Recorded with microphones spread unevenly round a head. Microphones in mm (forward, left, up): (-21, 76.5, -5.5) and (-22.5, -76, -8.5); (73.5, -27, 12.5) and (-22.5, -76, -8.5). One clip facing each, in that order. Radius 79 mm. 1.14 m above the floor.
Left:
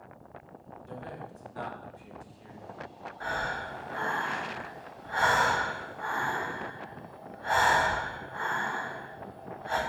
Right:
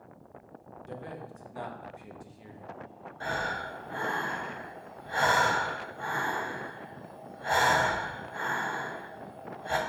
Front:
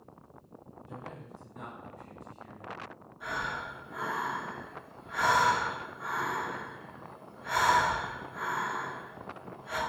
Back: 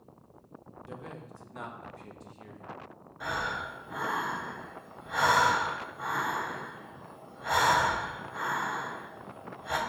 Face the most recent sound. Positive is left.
turn(degrees=-145)